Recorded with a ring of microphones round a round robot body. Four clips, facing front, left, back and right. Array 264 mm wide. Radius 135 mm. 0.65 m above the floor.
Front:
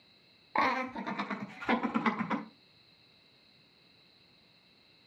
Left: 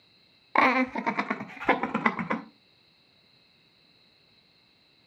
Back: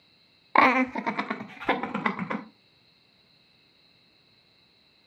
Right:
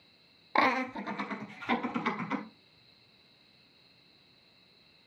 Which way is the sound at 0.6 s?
170° left.